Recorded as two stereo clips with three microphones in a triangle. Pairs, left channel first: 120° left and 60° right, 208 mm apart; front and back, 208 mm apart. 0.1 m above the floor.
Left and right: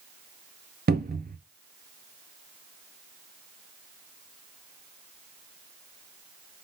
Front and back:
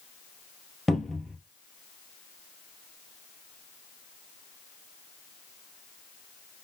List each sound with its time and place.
0.9 s a cupboard door: 90° right, 0.5 m